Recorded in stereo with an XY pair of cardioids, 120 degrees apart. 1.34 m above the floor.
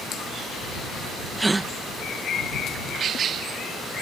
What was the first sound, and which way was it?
A gasp, 15° right.